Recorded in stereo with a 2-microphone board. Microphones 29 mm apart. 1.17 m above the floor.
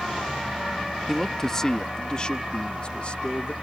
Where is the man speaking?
10° left (ahead or behind); by 3.5 s 50° left (ahead or behind).